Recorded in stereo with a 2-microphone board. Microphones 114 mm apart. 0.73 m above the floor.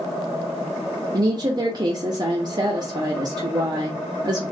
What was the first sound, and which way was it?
A woman speaking, 40° right (ahead or behind).